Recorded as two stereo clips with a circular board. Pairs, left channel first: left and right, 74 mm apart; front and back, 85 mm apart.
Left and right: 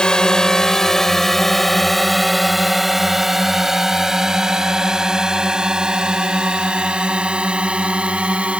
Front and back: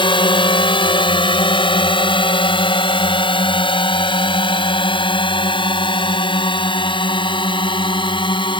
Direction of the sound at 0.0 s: 10° left.